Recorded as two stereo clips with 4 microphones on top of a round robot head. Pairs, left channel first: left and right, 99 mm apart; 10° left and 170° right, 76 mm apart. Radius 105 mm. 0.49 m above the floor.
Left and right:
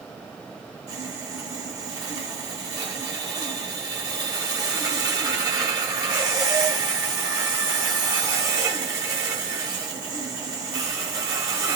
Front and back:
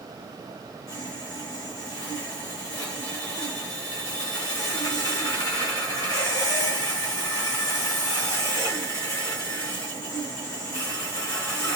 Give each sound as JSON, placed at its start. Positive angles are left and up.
{"t": 0.9, "sound": "sawing", "azimuth_deg": -35, "distance_m": 1.6}